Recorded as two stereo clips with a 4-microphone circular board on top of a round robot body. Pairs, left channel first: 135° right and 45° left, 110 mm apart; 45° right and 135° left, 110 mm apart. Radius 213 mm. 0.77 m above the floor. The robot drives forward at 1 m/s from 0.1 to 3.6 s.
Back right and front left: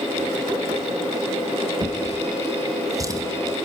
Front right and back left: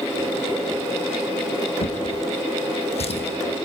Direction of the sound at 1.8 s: 10° right.